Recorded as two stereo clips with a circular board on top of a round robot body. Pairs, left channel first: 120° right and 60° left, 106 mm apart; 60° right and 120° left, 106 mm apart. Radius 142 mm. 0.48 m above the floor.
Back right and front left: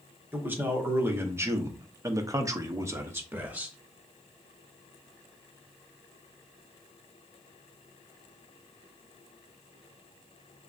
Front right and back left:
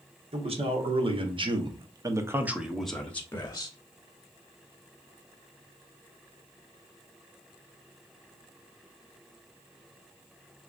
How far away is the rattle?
I don't hear a rattle.